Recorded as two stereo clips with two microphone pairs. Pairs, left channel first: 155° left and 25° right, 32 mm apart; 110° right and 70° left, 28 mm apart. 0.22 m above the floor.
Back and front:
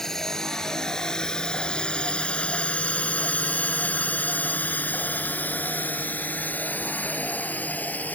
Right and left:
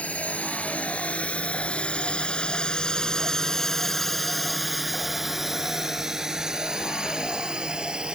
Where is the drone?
130° right; by 8.2 s 125° left.